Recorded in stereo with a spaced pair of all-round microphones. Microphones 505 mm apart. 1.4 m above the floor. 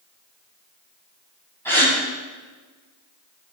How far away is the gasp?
About 4.5 m.